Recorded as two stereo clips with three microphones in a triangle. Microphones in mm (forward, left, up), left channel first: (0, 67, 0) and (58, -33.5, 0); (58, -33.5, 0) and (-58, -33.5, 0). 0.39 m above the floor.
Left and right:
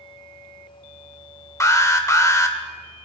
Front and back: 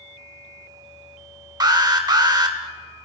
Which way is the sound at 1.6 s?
160° left.